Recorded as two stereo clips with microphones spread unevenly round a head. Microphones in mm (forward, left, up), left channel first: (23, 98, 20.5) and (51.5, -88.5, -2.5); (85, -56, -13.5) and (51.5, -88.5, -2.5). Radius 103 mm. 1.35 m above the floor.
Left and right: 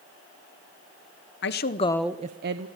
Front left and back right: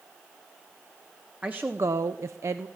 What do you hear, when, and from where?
1.4 s a woman speaking: 140° left, 1.0 m; by 2.7 s 95° right, 1.0 m